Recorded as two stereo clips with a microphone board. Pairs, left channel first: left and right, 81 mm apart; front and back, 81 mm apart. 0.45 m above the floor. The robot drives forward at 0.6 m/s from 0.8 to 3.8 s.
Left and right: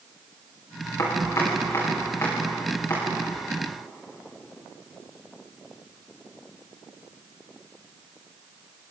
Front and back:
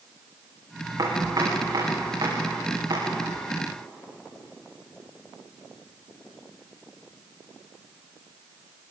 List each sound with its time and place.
1.0 s chopping: 140° left, 9 m; by 3.1 s 145° left, 10 m